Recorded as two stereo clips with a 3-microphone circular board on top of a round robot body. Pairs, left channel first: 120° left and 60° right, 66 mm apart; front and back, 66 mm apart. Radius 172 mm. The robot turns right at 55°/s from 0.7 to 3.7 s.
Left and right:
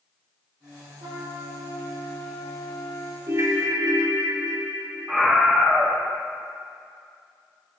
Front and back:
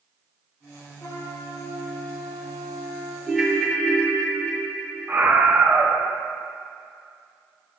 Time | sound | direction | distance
1.0 | a trumpet | 50° right | 2.5 m
3.3 | a ringtone | 100° right | 1.4 m
5.1 | a scream | 145° right | 1.5 m